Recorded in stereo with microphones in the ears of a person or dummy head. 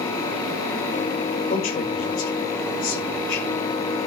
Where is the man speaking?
40° left (ahead or behind), 5 m.